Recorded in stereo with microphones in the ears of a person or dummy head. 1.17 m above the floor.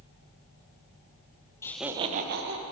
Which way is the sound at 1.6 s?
20° left (ahead or behind).